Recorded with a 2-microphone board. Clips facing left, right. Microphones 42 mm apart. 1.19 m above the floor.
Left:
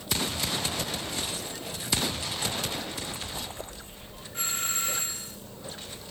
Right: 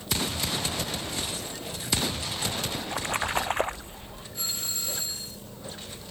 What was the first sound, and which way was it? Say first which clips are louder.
A splash: right 6 dB; 85° right.